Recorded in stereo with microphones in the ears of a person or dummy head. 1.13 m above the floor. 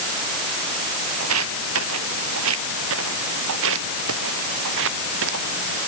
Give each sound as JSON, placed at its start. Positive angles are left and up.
{"t": 1.2, "sound": "footsteps", "side_deg": -80}